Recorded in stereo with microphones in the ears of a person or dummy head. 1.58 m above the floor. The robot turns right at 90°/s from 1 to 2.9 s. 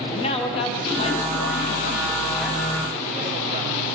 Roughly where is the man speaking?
Ahead left.